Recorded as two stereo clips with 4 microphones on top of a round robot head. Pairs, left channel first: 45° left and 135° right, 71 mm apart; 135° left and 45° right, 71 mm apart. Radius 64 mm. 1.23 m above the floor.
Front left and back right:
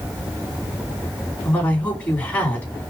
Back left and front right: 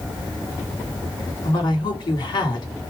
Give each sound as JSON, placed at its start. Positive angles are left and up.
{"t": 1.4, "sound": "a woman speaking", "azimuth_deg": 115, "distance_m": 3.0}